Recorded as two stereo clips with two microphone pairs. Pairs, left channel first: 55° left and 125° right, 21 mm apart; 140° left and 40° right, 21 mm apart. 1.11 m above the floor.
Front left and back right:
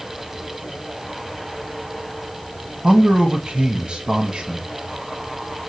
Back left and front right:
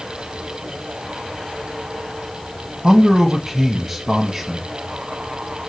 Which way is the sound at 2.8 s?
100° right.